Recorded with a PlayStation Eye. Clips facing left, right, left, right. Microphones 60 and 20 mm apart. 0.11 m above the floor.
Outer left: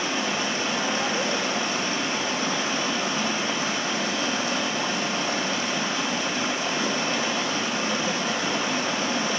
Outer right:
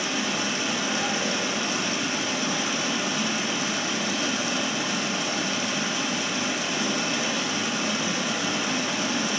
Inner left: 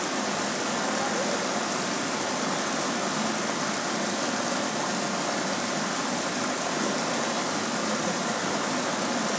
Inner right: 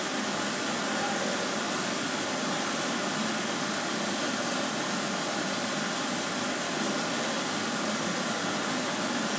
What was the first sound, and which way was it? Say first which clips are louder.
Running water: outer left 1 dB, inner left 2 dB; 40° left (ahead or behind).